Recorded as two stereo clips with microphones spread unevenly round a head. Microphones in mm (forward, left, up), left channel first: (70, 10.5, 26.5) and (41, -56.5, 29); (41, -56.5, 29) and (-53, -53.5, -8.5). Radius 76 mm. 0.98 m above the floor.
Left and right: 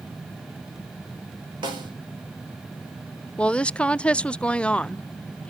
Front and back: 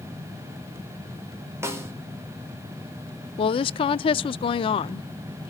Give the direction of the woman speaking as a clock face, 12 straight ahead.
12 o'clock.